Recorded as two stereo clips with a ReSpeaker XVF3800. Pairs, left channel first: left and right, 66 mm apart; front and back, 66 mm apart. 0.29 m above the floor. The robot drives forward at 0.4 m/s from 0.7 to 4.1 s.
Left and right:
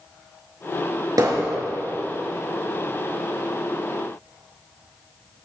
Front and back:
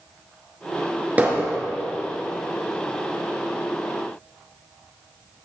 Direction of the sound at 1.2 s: 115° right.